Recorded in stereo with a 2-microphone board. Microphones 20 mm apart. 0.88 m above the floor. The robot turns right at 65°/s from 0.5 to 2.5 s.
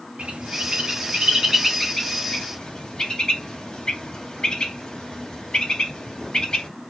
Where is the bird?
85° right, 3 m; by 6.7 s 45° left (ahead or behind), 3 m.